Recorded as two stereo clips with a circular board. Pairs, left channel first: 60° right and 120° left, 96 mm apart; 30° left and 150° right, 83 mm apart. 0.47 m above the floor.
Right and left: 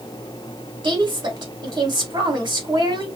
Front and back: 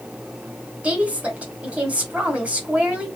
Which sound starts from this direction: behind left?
A woman speaking, at 0.8 s.